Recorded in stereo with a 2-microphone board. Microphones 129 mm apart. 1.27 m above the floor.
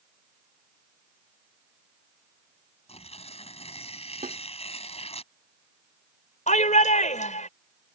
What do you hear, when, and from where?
2.9 s tearing paper: 50° left (ahead or behind)
4.2 s a snare drum: 75° right (ahead or behind)
6.5 s a shout: 70° left (ahead or behind)